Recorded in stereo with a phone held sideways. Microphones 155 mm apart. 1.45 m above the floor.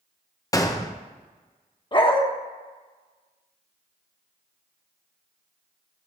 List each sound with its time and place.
0.5 s a gunshot: 20° left (ahead or behind), 0.8 m
1.9 s a dog barking: 30° left (ahead or behind), 1.0 m